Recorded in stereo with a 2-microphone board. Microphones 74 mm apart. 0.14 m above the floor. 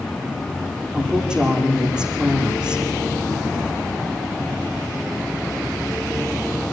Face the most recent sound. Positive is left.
turn(degrees=-10)  # may be behind; listen again after turning